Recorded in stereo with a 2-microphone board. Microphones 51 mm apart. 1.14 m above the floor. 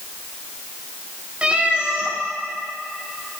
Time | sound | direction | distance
1.4 | a cat meowing | 20° right (ahead or behind) | 0.8 m